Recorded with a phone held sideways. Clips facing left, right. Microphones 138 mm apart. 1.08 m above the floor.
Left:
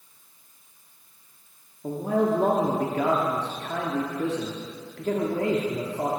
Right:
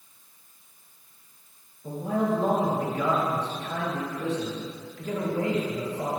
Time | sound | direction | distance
1.8 | a man speaking | 70° left (ahead or behind) | 1.9 m